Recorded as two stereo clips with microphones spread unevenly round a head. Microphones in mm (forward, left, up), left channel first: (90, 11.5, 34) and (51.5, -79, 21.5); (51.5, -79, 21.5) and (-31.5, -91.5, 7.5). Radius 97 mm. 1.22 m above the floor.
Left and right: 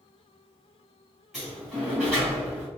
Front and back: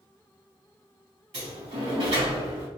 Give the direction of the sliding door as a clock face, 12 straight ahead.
7 o'clock.